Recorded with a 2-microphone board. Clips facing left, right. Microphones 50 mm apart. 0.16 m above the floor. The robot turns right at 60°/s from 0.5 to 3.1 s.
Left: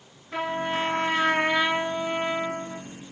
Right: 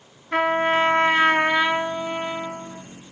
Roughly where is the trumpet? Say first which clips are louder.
Right 8 dB; right.